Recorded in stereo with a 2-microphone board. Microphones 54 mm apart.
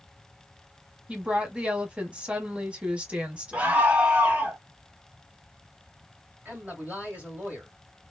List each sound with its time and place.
1.1 s a woman speaking: 20° right (ahead or behind), 1.0 m
3.5 s a scream: 25° right (ahead or behind), 1.1 m
6.5 s a man speaking: 30° right (ahead or behind), 2 m